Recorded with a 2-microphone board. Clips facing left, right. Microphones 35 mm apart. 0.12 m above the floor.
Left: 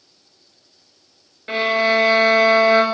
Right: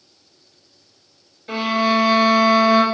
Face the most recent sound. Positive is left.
turn(degrees=40)  # may be behind; listen again after turning